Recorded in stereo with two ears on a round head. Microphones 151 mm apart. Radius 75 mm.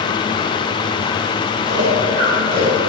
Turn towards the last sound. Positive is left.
turn(degrees=-30)  # may be behind; listen again after turning